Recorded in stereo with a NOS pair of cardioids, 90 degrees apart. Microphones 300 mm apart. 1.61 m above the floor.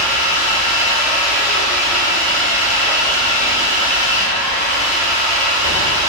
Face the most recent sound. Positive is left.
turn(degrees=-25)